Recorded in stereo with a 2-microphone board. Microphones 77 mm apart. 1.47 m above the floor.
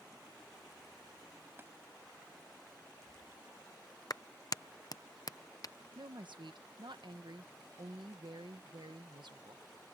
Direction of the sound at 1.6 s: 30° right (ahead or behind).